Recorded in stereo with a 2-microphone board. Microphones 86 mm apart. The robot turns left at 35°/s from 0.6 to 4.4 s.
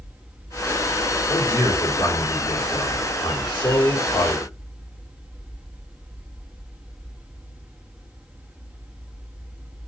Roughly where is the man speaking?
Behind left.